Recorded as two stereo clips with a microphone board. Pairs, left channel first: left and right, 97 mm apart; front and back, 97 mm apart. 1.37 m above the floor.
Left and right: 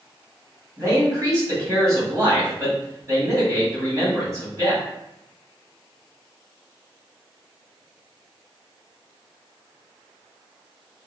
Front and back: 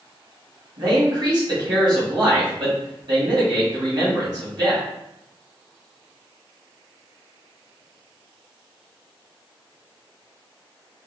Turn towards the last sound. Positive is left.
turn(degrees=-145)